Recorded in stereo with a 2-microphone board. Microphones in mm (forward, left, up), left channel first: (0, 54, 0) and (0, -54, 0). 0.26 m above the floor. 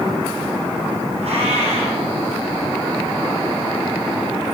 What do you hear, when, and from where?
1.2 s a cat meowing: 75° right (ahead or behind), 2.5 m